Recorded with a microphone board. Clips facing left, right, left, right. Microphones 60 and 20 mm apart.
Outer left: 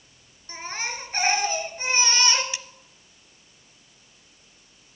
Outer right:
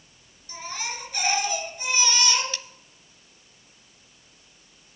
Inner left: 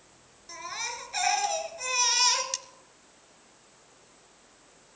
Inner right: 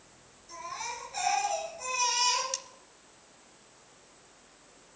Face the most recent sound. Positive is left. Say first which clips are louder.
# even, inner left 2 dB
turn(degrees=15)  # may be behind; listen again after turning